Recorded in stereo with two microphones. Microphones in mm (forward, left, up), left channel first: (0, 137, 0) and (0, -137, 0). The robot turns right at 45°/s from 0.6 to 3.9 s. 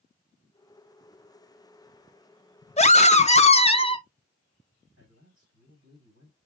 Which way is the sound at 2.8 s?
25° left (ahead or behind).